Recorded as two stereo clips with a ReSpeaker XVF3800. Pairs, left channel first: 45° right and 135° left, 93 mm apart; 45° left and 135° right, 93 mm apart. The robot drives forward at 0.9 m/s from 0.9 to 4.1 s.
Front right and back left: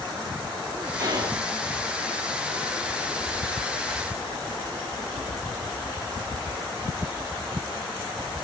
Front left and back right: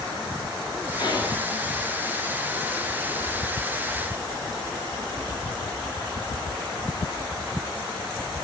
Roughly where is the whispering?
Left.